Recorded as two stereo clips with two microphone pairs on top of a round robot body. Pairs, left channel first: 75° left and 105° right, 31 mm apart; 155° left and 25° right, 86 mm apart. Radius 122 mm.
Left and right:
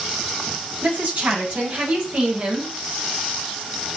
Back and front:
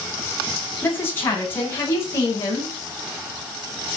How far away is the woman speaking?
About 9 m.